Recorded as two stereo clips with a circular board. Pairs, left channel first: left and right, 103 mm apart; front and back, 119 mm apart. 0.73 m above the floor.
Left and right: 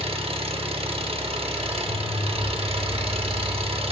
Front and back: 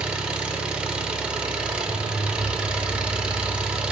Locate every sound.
0.0 s an engine running: 100° right, 0.7 m